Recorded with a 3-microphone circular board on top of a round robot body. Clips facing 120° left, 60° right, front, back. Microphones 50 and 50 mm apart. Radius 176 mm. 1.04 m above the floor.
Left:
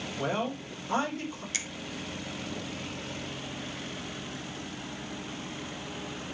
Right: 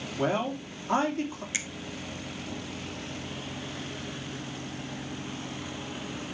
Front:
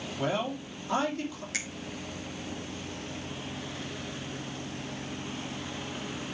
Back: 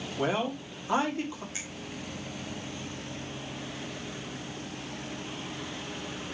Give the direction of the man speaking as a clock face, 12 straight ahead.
4 o'clock.